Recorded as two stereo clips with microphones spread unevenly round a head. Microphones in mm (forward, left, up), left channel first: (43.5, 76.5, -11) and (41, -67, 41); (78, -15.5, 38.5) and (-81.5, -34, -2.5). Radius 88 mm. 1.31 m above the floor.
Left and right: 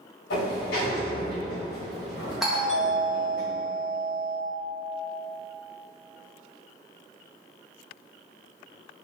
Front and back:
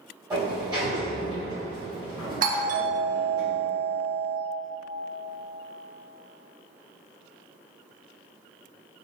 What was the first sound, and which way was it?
A sliding door, 110° left.